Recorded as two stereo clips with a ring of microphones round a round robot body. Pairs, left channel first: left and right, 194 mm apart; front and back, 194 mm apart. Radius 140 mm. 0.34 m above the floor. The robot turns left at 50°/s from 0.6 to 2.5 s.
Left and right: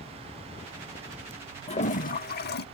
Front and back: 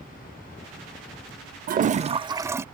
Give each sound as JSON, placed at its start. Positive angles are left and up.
{"t": 1.7, "sound": "a toilet flushing", "azimuth_deg": 145}